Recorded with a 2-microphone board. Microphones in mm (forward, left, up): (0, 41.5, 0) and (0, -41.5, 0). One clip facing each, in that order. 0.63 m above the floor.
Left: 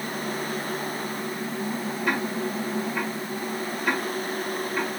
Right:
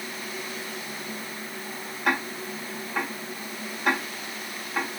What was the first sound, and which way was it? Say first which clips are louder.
Ticking: right 1 dB; 75° right (ahead or behind).